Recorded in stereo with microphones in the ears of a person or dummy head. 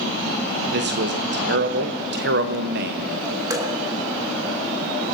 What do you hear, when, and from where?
0.7 s a man speaking: 55° right (ahead or behind), 0.7 m
3.5 s dripping: 20° right (ahead or behind), 1.8 m